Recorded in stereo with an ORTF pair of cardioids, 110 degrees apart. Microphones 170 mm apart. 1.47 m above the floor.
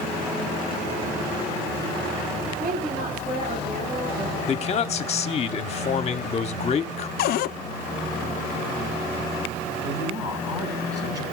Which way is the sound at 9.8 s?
20° right.